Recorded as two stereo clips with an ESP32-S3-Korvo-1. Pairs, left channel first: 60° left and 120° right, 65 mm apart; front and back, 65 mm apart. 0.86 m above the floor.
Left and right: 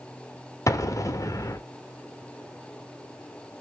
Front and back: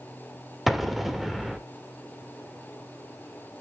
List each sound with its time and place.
0.7 s an explosion: 90° left, 1.1 m